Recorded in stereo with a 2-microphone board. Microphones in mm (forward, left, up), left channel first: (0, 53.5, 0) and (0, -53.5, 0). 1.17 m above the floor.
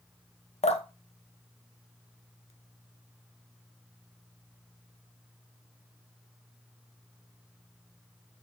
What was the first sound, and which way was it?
Dripping, 75° left (ahead or behind).